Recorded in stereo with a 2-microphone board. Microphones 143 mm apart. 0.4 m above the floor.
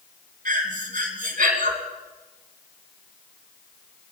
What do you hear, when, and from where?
0.5 s breathing: 75° right (ahead or behind), 2.5 m